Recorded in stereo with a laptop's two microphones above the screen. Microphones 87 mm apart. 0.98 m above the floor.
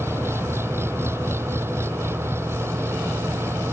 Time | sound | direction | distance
0.0 | an engine running | 25° right (ahead or behind) | ?